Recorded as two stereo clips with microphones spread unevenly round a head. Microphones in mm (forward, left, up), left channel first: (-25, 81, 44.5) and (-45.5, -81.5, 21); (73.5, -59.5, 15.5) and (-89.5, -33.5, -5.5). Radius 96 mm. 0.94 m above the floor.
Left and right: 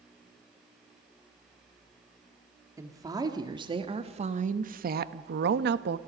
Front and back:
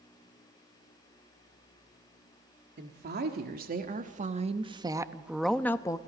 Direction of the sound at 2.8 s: 170° right.